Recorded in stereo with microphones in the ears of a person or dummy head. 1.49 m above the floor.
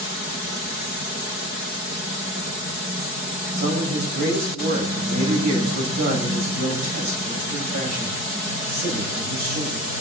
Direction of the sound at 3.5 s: 50° right (ahead or behind).